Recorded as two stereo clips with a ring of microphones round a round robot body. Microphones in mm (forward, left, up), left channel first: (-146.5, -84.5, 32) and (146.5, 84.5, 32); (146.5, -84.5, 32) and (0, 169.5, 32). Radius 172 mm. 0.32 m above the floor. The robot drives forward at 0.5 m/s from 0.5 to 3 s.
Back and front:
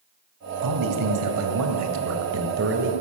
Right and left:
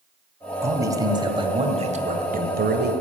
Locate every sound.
0.6 s a man speaking: 40° left, 2 m; by 2.9 s 75° left, 1.7 m